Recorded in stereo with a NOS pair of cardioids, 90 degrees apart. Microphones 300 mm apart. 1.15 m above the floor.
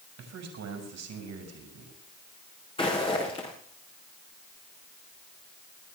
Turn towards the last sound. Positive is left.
turn(degrees=20)